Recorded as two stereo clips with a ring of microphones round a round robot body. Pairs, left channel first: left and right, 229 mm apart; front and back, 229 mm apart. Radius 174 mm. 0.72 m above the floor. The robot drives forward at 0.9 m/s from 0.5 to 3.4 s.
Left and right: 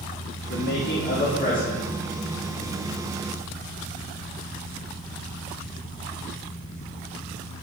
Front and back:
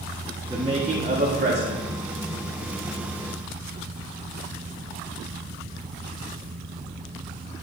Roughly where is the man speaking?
Left.